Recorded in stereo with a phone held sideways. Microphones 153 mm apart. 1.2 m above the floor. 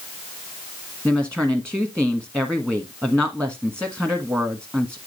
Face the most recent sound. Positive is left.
turn(degrees=-15)  # may be behind; listen again after turning